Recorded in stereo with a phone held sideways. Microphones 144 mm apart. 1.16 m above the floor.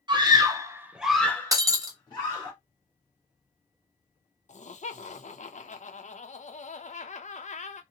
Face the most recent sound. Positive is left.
turn(degrees=55)  # may be behind; listen again after turning